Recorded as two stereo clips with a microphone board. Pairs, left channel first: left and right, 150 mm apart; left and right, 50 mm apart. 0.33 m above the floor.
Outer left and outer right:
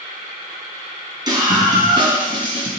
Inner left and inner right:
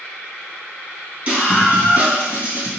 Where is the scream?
25° right (ahead or behind), 4 m; by 2.7 s 35° right (ahead or behind), 3.5 m.